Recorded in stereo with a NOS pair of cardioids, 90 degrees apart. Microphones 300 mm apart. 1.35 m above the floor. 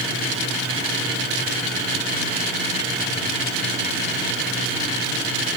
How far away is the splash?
No splash in this recording.